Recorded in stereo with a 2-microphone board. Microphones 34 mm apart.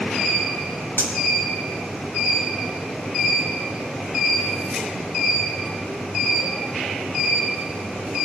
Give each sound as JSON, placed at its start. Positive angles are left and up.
{"t": 1.0, "sound": "cutlery clinking", "side_deg": 85, "distance_m": 1.3}